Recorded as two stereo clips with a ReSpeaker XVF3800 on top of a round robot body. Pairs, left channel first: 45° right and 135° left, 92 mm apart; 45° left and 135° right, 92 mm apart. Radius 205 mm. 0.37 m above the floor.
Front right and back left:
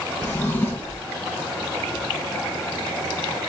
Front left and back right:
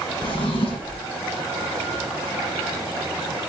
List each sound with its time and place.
0.2 s a drawer: 30° left, 1.6 m